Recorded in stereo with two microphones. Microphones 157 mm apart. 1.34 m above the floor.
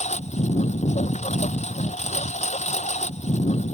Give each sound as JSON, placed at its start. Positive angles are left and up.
{"t": 0.0, "sound": "a lawn mower", "side_deg": 45}